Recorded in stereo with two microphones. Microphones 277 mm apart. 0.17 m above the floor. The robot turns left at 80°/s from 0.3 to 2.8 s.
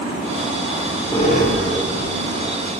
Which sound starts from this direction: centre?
A squeak, at 0.7 s.